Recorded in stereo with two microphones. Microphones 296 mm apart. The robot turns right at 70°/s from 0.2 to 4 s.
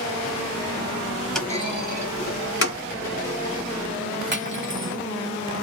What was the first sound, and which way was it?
A clunk, centre (ahead or behind).